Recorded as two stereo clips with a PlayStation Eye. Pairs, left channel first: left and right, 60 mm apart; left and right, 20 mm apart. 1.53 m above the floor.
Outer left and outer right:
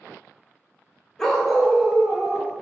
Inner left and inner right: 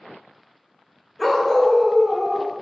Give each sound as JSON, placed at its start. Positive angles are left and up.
{"t": 1.2, "sound": "a dog barking", "side_deg": 5, "distance_m": 0.9}